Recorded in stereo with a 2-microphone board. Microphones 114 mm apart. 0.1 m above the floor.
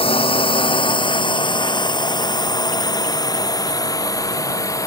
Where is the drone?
50° left (ahead or behind); by 4.9 s 25° left (ahead or behind).